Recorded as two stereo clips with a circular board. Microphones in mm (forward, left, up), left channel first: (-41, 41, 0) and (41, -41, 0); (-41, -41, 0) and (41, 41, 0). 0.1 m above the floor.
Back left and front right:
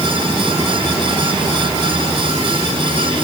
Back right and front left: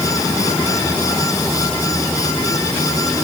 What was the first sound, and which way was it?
Only background noise.